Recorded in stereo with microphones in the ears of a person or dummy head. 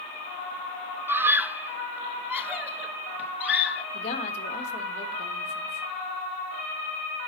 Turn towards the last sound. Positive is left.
turn(degrees=55)  # may be behind; listen again after turning